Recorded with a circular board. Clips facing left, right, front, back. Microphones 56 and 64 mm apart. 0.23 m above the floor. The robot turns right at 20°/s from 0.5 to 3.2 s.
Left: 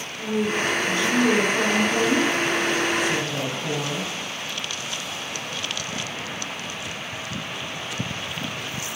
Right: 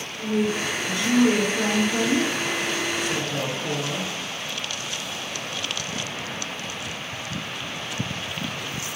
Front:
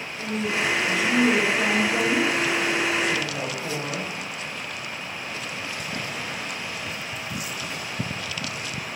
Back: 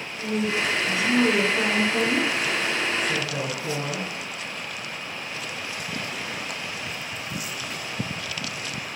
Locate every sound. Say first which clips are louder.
0.2 s a woman speaking: even, back 1 dB; 105° left, 1.6 m; by 4.1 s 155° left, 1.6 m